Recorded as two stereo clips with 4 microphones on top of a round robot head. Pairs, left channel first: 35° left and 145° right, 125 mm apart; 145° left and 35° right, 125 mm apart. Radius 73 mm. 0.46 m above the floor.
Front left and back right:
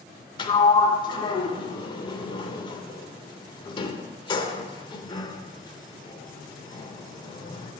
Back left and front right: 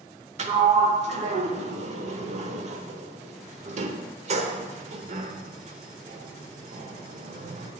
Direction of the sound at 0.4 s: 10° right.